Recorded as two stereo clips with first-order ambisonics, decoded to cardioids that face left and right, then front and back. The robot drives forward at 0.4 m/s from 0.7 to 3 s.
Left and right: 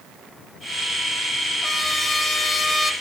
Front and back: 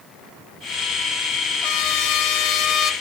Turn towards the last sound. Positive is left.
turn(degrees=25)